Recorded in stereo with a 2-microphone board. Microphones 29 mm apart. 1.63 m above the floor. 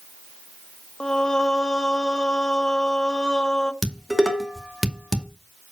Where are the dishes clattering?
10° right (ahead or behind), 2.5 m.